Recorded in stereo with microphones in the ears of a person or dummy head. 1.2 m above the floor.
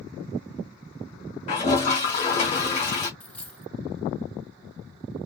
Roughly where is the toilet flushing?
Left.